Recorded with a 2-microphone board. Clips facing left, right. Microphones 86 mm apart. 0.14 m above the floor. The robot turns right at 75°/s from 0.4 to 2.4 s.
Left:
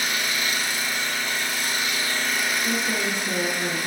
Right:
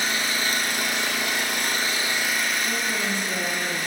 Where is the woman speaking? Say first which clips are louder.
Left 1 dB; 55° left (ahead or behind), 1.9 m.